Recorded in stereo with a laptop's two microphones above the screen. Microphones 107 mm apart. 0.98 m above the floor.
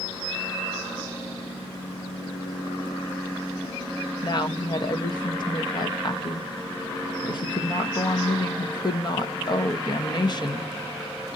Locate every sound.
4.2 s a woman speaking: 40° left (ahead or behind), 0.7 m